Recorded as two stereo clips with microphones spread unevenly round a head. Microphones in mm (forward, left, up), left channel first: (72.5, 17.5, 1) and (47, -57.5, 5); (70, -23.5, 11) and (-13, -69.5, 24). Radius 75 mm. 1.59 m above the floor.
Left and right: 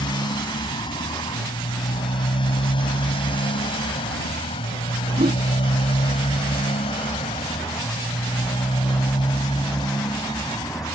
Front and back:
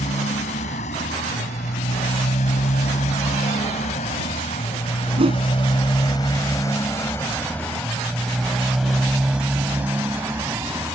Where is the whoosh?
130° right.